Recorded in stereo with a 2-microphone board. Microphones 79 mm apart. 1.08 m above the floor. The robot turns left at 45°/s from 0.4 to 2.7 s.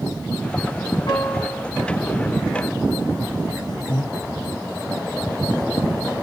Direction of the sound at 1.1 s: 60° left (ahead or behind).